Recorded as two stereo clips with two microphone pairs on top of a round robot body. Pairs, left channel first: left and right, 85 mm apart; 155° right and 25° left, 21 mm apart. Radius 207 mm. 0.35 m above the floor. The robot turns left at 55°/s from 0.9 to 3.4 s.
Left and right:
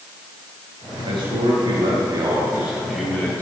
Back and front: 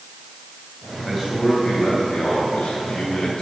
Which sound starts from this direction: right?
A man speaking, at 1.0 s.